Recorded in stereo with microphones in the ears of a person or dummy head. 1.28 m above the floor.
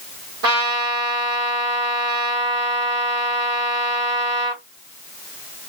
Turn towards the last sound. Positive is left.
turn(degrees=-70)  # may be behind; listen again after turning